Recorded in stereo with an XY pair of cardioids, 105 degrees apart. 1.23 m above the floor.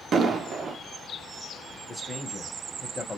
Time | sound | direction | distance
0.1 | an explosion | 50° right | 0.6 m
1.9 | a man speaking | 15° left | 0.9 m